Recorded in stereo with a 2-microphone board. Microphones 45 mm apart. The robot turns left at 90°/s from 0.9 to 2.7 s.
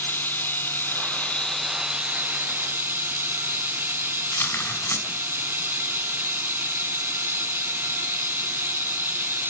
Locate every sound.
0.0 s running water: 65° left, 1.7 m; by 9.5 s 95° right, 1.7 m
4.3 s tearing paper: 75° left (ahead or behind), 4.5 m